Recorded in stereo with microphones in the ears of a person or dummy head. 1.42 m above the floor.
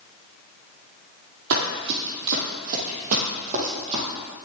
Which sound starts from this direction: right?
Running footsteps, at 1.5 s.